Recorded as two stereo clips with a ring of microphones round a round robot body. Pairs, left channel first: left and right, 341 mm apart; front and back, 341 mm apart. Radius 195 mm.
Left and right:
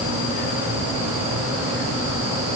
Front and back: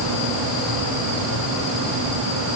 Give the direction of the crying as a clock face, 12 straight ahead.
I don't hear crying.